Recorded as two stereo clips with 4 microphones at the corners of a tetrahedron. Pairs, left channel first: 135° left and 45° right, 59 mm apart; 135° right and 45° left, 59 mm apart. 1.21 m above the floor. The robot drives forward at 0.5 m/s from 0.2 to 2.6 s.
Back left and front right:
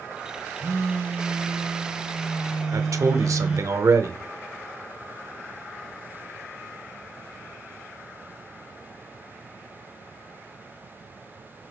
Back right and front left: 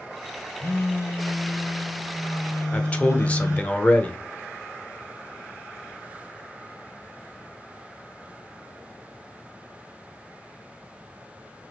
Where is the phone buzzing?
85° right, 1.5 m; by 3.7 s 120° right, 1.7 m.